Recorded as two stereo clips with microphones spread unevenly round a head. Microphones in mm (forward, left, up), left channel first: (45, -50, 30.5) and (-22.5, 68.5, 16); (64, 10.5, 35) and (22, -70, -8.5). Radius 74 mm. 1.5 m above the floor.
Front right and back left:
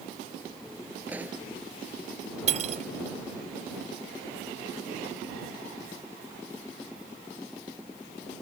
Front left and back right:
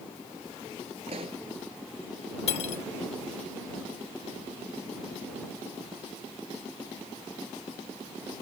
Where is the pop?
160° right.